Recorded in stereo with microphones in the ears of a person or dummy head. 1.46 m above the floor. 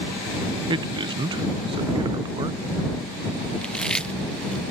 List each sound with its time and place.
0.7 s a man speaking: 25° right (ahead or behind)
3.6 s chewing: centre (ahead or behind)